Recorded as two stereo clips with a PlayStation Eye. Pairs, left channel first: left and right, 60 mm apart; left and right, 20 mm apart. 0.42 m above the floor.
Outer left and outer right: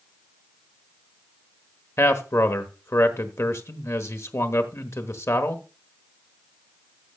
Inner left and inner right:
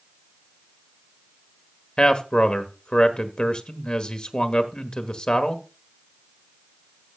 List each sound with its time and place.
2.0 s a man speaking: 50° left (ahead or behind), 1.2 m